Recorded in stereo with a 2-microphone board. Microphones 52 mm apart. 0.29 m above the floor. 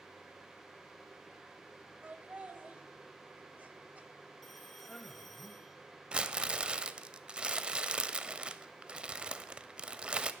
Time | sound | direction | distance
2.0 | laughter | 30° right (ahead or behind) | 1.2 m
4.4 | a man speaking | 5° left (ahead or behind) | 1.0 m
6.1 | crumpling | 20° right (ahead or behind) | 0.5 m